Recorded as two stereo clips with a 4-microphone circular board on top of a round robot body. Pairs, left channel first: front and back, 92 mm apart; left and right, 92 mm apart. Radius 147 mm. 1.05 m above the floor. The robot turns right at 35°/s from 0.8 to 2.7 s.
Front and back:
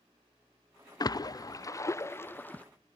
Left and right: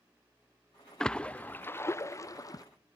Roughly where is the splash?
Ahead.